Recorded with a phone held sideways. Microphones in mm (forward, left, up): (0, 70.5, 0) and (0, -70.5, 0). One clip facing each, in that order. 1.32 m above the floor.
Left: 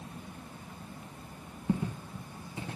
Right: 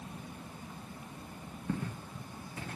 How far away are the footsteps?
About 1.4 m.